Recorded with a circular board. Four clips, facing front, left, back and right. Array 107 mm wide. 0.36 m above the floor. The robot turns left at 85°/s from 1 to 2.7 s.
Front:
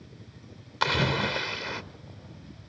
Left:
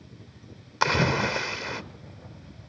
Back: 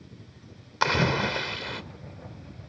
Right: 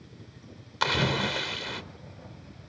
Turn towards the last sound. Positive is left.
turn(degrees=-25)